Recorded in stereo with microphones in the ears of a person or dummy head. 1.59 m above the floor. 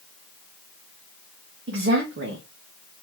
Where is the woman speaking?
65° right (ahead or behind), 1.4 m.